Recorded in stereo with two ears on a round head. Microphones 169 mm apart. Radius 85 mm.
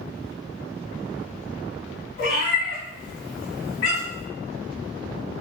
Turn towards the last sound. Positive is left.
turn(degrees=60)  # may be behind; listen again after turning